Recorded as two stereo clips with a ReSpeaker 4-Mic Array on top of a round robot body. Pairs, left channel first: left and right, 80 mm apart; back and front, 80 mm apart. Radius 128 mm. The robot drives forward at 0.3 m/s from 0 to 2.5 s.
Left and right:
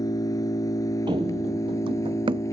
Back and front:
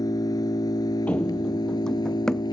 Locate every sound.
0.0 s an engine running: 135° left; by 2.5 s 145° left
1.1 s running footsteps: 110° right; by 2.4 s 95° right